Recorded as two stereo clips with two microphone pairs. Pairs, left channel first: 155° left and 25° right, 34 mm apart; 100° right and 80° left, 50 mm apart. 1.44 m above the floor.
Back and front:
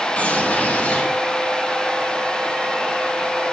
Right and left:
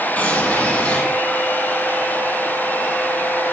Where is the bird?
170° right, 8 m.